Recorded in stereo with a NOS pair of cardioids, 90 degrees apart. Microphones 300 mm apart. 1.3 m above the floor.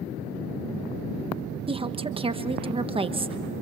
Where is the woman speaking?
20° right, 1.2 m.